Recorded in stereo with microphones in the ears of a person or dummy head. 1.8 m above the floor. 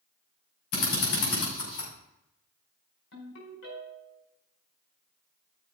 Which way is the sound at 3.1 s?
75° left (ahead or behind).